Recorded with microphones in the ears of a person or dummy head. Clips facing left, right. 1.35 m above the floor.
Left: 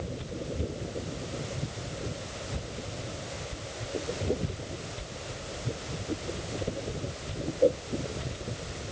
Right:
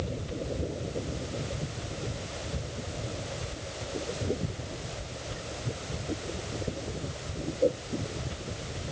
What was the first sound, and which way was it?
Only background noise.